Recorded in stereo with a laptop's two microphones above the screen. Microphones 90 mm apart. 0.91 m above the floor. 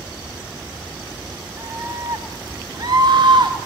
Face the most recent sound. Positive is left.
turn(degrees=-60)  # may be behind; listen again after turning